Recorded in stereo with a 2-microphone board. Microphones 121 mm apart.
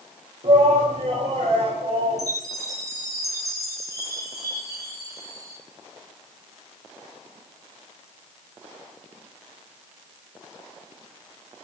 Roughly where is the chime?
Right.